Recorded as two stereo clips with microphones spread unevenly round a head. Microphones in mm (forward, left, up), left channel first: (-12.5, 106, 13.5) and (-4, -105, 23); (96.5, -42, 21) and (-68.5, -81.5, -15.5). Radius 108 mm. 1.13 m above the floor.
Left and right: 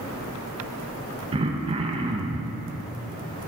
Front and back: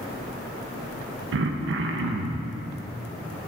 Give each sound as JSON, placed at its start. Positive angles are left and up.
{"t": 1.3, "sound": "throat clearing", "azimuth_deg": -155, "distance_m": 0.6}